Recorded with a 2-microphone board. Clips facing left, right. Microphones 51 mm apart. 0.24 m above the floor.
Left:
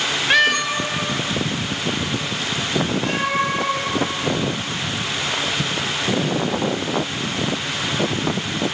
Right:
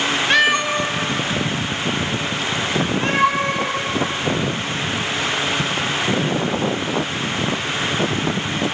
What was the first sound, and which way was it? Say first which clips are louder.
A cat meowing: even; 5° left (ahead or behind).